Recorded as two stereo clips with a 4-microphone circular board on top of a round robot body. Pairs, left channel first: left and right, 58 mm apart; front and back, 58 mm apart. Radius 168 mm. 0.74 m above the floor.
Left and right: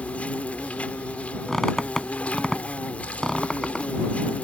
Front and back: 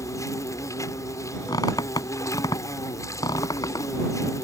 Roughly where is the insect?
Ahead left.